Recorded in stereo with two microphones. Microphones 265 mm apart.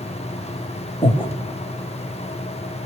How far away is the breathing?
About 1.8 m.